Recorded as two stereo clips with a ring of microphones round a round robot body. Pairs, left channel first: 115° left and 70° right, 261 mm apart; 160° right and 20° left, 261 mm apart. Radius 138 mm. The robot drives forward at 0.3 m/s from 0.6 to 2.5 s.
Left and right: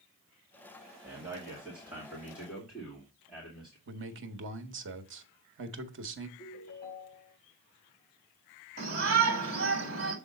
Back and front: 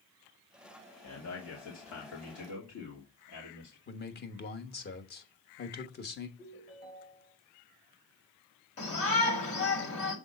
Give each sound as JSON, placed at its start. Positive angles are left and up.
{"t": 1.0, "sound": "a man speaking", "azimuth_deg": -150, "distance_m": 2.0}
{"t": 3.9, "sound": "a man speaking", "azimuth_deg": -110, "distance_m": 1.2}
{"t": 6.4, "sound": "a ringtone", "azimuth_deg": 145, "distance_m": 4.5}
{"t": 8.8, "sound": "a shout", "azimuth_deg": -120, "distance_m": 2.5}